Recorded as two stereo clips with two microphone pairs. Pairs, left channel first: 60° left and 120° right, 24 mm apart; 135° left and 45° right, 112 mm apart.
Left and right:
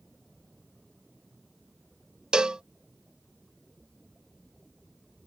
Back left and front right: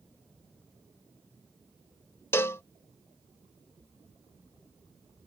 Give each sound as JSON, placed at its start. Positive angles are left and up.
{"t": 2.3, "sound": "a cowbell", "azimuth_deg": -165}